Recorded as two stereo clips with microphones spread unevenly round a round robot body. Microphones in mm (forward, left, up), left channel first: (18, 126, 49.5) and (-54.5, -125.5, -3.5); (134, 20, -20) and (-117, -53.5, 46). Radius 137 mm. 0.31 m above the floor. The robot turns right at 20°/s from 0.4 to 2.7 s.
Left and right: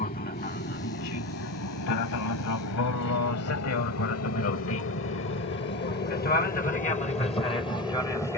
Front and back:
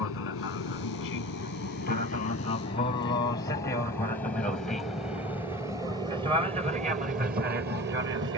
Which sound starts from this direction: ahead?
An aircraft, at 0.0 s.